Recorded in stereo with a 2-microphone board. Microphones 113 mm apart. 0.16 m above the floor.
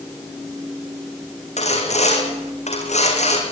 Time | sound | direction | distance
1.6 | sawing | 85° left | 5.5 m